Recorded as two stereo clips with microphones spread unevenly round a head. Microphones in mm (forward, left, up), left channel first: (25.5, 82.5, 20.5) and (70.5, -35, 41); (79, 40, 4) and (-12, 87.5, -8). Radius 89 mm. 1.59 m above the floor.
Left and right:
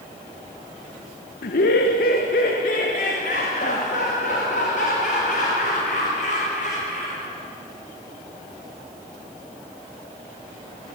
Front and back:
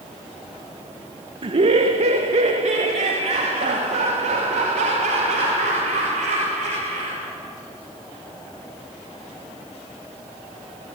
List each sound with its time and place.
1.4 s laughter: 120° left, 1.2 m; by 7.2 s 160° left, 5.5 m